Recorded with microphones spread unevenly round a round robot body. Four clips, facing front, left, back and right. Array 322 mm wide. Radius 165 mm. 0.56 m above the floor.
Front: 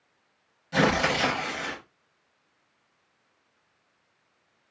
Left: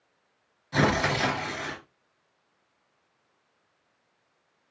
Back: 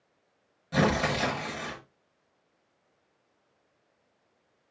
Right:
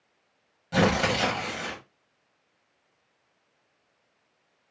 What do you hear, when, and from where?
0.7 s tearing paper: 120° right, 0.8 m